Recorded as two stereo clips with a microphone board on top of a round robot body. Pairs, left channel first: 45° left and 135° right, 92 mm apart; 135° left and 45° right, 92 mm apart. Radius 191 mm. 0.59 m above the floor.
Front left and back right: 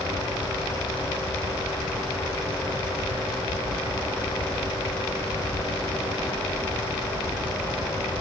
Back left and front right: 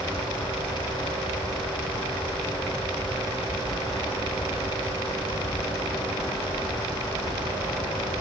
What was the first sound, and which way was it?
Only background noise.